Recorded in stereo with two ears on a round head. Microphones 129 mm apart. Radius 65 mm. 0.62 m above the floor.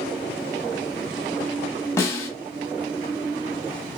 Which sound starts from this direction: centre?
A snare drum, at 2.0 s.